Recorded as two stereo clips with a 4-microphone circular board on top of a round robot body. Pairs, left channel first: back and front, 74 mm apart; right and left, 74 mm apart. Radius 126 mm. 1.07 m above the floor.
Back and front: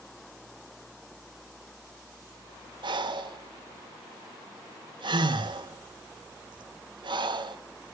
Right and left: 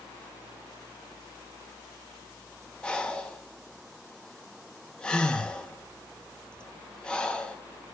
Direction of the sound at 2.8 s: 10° right.